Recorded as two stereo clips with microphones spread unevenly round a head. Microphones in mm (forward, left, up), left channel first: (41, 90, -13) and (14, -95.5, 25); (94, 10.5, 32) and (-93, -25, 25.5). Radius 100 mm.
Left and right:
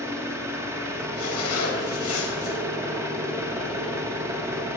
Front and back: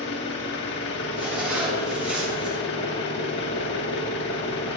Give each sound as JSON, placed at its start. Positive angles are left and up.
{"t": 0.0, "sound": "an engine running", "azimuth_deg": -20, "distance_m": 1.5}
{"t": 1.2, "sound": "a zipper", "azimuth_deg": 105, "distance_m": 3.0}